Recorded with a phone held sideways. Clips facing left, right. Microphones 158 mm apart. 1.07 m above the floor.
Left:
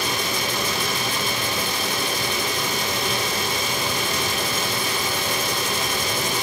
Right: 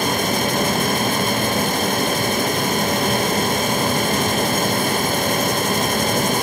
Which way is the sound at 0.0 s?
50° right (ahead or behind).